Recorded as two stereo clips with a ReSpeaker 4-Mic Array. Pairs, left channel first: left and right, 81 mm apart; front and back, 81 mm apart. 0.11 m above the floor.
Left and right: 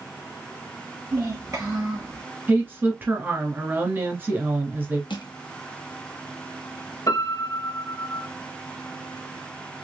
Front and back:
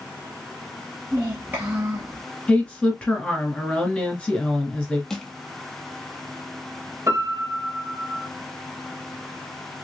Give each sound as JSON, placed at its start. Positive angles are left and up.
{"t": 1.1, "sound": "a child speaking", "azimuth_deg": -125, "distance_m": 2.0}
{"t": 2.5, "sound": "a woman speaking", "azimuth_deg": -60, "distance_m": 1.7}
{"t": 5.1, "sound": "crushing", "azimuth_deg": 85, "distance_m": 1.2}
{"t": 7.1, "sound": "a piano", "azimuth_deg": 130, "distance_m": 1.5}